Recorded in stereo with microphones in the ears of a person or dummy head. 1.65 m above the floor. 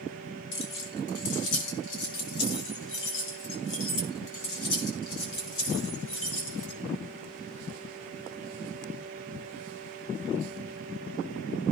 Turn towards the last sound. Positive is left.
turn(degrees=80)